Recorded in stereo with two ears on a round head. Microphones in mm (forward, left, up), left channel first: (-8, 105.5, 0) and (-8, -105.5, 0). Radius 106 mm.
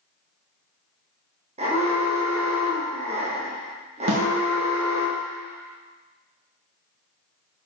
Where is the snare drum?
60° right (ahead or behind), 2 m.